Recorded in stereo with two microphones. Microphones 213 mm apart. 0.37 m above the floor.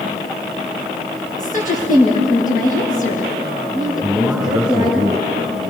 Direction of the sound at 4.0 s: Centre (ahead or behind).